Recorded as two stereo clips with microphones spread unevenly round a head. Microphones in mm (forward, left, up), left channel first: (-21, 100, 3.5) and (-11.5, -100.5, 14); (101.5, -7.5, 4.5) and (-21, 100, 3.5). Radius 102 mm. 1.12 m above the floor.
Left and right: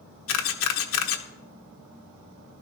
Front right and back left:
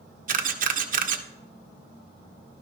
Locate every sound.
0.3 s a camera shutter: 105° left, 1.2 m